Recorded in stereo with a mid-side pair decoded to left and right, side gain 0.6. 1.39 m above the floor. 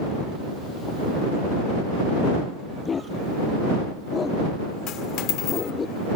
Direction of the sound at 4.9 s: 65° left.